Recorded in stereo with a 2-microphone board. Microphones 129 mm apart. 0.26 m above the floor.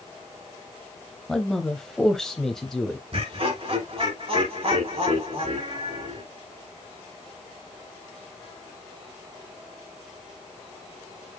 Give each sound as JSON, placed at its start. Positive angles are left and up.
{"t": 1.3, "sound": "a man speaking", "side_deg": 5, "distance_m": 1.0}
{"t": 3.1, "sound": "laughter", "side_deg": -50, "distance_m": 3.5}